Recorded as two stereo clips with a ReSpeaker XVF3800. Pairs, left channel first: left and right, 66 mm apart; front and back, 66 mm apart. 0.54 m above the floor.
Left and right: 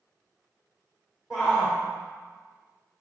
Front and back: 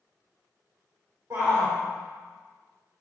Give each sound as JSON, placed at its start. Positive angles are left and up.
{"t": 1.3, "sound": "a shout", "azimuth_deg": -175, "distance_m": 2.5}